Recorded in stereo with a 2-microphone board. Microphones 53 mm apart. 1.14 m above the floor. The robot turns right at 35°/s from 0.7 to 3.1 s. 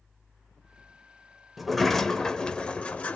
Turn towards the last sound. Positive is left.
turn(degrees=55)